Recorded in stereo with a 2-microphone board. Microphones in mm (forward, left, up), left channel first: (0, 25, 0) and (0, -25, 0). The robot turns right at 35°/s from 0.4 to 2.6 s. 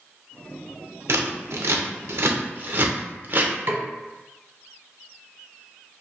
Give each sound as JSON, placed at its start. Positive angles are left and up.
{"t": 1.1, "sound": "scissors", "side_deg": -65, "distance_m": 0.6}
{"t": 3.7, "sound": "a snare drum", "side_deg": -50, "distance_m": 0.6}